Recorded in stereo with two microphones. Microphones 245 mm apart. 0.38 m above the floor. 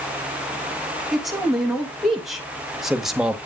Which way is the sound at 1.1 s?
Centre (ahead or behind).